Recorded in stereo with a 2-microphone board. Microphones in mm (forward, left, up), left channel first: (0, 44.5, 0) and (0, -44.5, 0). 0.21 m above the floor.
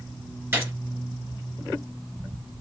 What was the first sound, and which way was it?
A gunshot, 25° right (ahead or behind).